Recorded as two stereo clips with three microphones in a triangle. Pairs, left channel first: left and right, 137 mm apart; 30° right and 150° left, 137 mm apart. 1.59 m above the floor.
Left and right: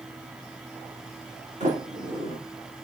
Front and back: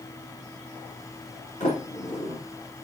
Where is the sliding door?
60° right, 5 m.